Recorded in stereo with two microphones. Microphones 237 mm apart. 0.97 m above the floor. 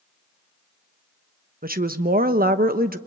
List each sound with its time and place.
1.6 s a woman speaking: 40° right (ahead or behind), 1.0 m